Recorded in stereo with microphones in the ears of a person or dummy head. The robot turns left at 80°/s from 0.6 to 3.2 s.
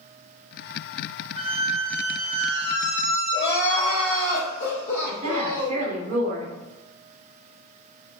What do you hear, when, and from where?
1.4 s a squeak: 140° right, 0.9 m; by 4.3 s 70° left, 0.9 m
3.3 s crying: 65° left (ahead or behind), 1.4 m
5.1 s a woman speaking: 40° right (ahead or behind), 0.9 m